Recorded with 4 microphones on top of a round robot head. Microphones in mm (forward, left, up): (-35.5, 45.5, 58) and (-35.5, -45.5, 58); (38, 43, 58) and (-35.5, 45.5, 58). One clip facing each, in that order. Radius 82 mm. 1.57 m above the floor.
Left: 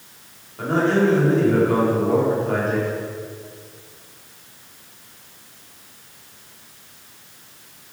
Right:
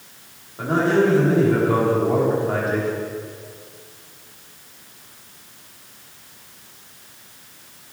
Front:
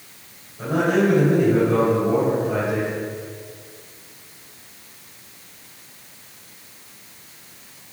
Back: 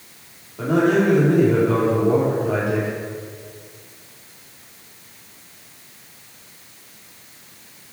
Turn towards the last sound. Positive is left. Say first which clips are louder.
# right 1 dB, back 2 dB
turn(degrees=-170)